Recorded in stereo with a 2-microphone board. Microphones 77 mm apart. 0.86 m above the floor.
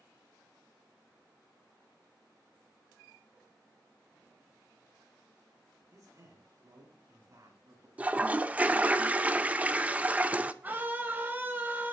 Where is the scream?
25° right (ahead or behind), 4 m.